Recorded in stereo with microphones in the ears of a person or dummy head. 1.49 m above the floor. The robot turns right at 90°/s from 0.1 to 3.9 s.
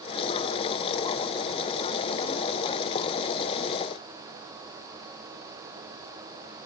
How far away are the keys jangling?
No keys jangling in this recording.